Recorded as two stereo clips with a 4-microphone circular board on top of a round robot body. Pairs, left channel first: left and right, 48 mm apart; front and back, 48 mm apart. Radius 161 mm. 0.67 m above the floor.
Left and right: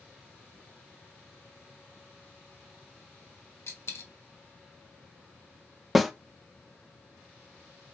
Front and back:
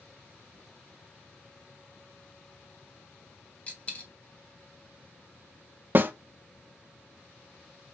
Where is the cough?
I don't hear a cough.